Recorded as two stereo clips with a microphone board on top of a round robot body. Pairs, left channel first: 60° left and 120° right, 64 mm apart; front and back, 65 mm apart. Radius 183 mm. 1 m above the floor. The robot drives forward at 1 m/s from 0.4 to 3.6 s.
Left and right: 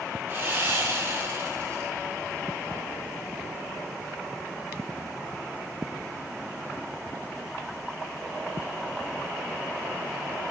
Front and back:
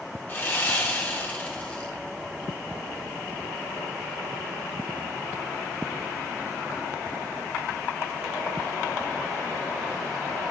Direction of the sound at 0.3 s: 60° right.